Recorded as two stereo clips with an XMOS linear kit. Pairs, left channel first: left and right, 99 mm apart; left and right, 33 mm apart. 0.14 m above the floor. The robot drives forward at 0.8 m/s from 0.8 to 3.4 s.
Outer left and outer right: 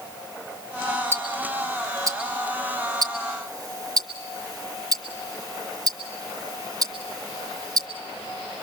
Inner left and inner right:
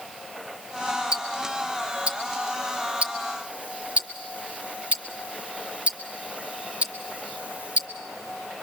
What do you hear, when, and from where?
1.1 s ticking: 25° right (ahead or behind), 1.9 m; by 7.9 s 40° right (ahead or behind), 1.4 m